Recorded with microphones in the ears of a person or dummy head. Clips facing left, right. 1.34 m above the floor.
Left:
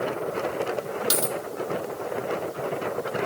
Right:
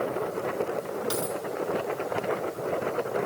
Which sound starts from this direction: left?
A dropped coin, at 1.1 s.